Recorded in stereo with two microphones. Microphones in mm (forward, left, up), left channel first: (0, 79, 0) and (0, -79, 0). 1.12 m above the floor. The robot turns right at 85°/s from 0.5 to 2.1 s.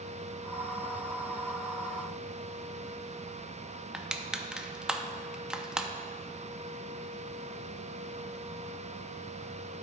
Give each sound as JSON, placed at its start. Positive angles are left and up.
{"t": 3.9, "sound": "crushing", "side_deg": -5, "distance_m": 0.5}